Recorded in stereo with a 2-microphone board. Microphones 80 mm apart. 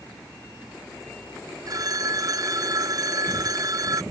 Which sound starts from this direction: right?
A phone ringing, at 1.7 s.